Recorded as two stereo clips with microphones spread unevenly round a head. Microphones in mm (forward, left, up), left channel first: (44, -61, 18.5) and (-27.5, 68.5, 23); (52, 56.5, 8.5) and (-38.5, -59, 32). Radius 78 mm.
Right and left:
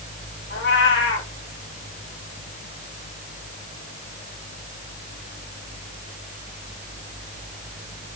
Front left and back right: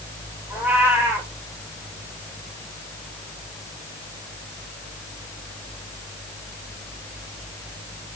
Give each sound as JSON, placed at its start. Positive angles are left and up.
{"t": 0.5, "sound": "a cat meowing", "azimuth_deg": -55, "distance_m": 2.5}